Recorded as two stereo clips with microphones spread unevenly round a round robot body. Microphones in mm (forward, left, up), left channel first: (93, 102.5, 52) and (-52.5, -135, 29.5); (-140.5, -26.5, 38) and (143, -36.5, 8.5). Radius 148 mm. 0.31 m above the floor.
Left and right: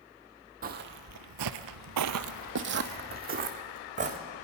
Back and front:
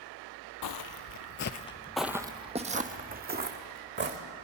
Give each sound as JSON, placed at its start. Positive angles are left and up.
{"t": 0.6, "sound": "footsteps", "azimuth_deg": 175, "distance_m": 0.7}